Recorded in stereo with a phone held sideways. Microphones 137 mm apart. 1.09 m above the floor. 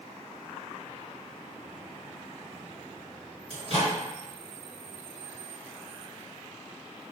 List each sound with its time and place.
3.5 s a microwave: 45° right (ahead or behind), 1.1 m